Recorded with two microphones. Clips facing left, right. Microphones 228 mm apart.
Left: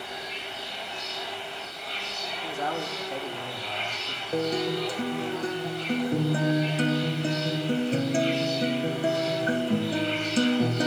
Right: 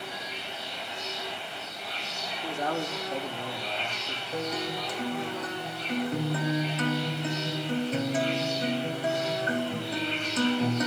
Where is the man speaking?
5° left (ahead or behind), 3 m.